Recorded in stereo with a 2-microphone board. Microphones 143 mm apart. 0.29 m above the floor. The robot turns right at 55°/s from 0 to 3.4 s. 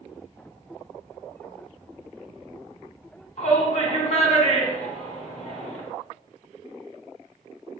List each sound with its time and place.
3.4 s a shout: 50° left (ahead or behind), 2.5 m